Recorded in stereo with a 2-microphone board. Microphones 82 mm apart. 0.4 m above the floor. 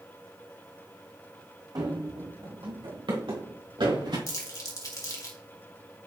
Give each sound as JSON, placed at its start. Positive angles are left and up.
{"t": 1.8, "sound": "running footsteps", "side_deg": -50, "distance_m": 1.5}
{"t": 4.3, "sound": "crumpling", "side_deg": 50, "distance_m": 1.9}